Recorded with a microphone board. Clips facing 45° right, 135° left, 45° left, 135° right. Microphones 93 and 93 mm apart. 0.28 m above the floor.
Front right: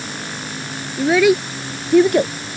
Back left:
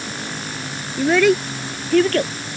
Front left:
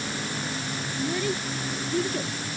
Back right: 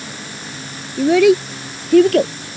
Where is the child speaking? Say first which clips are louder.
Front right 1 dB, back right 18 dB; 135° right; by 2.3 s 120° right.